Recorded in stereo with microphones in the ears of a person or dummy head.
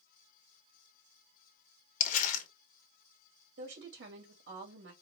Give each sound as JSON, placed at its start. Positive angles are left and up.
{"t": 2.0, "sound": "crumpling", "side_deg": 45, "distance_m": 1.2}
{"t": 3.6, "sound": "a woman speaking", "side_deg": -60, "distance_m": 2.5}